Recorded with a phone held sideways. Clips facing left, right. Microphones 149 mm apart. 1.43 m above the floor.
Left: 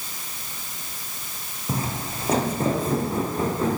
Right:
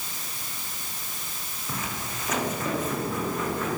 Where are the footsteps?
30° left (ahead or behind), 3.5 m.